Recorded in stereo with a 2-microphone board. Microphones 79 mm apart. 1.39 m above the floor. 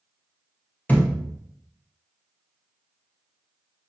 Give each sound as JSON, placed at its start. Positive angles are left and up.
{"t": 0.9, "sound": "a thud", "side_deg": 25, "distance_m": 0.9}